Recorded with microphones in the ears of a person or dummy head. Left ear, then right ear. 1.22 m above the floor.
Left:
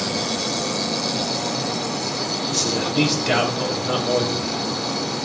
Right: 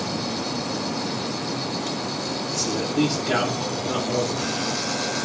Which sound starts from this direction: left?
A man speaking, at 2.5 s.